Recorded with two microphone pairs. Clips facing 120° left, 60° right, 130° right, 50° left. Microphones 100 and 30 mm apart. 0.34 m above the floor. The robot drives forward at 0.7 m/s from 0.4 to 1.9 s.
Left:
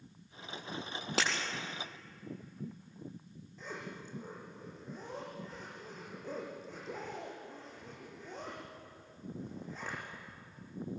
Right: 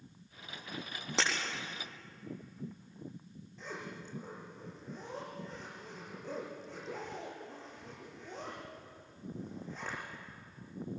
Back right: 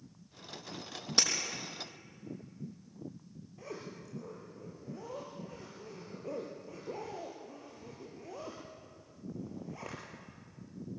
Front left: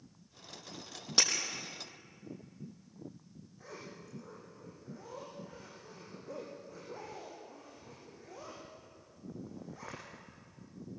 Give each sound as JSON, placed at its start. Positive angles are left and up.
{"t": 1.2, "sound": "breaking glass", "azimuth_deg": 125, "distance_m": 3.5}
{"t": 3.6, "sound": "a zipper", "azimuth_deg": -155, "distance_m": 7.5}